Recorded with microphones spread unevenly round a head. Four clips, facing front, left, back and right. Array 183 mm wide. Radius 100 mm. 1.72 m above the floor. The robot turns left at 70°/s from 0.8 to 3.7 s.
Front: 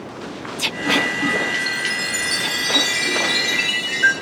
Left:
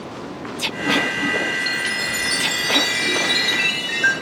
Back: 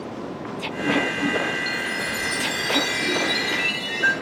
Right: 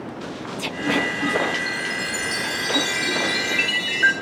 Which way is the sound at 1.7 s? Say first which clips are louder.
Left 2 dB, front 1 dB; 80° left.